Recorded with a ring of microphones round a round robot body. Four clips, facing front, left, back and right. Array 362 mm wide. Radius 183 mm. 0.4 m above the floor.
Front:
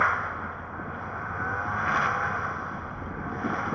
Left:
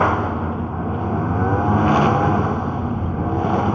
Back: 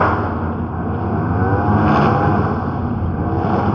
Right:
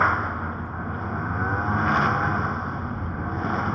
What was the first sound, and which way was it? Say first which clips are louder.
A lawn mower: left 4 dB, back 10 dB; 155° left.